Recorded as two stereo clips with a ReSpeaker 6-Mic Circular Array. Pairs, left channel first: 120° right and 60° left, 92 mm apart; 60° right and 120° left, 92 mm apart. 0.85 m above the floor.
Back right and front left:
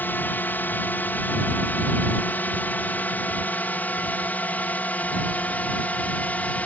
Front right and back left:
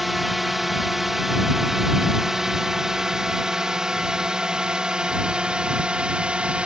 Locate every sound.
0.0 s a drone: 155° right; by 6.7 s 175° right